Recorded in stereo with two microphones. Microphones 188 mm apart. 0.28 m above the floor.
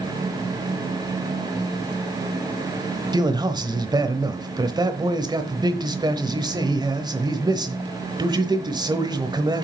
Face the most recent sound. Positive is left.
turn(degrees=-20)  # may be behind; listen again after turning